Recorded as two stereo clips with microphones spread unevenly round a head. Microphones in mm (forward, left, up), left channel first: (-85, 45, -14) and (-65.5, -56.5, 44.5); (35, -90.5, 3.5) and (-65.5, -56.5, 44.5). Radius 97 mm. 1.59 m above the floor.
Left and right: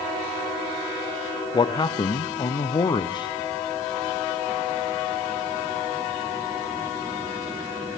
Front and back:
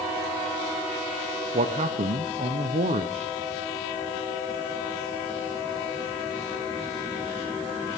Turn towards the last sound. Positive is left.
turn(degrees=160)